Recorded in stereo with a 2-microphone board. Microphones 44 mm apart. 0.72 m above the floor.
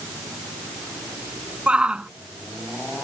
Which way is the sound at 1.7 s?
25° right (ahead or behind).